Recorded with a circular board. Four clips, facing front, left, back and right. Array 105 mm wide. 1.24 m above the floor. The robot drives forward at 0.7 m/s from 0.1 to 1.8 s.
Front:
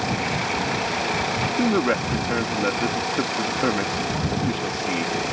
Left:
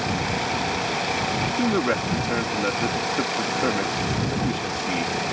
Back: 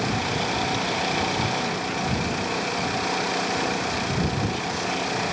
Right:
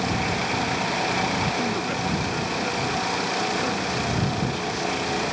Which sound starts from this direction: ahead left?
A man speaking, at 1.6 s.